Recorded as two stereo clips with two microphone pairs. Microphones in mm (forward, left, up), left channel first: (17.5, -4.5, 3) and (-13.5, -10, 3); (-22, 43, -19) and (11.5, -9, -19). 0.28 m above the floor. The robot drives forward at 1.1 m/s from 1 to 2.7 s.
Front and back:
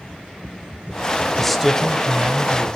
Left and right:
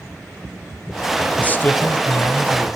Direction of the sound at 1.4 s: 80° left.